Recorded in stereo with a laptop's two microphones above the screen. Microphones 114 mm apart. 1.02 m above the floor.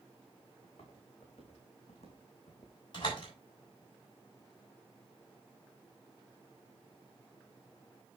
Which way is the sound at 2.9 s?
45° left (ahead or behind).